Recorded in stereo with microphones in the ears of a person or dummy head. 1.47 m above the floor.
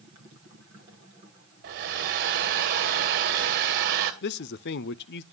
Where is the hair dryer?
50° right (ahead or behind), 1.6 m.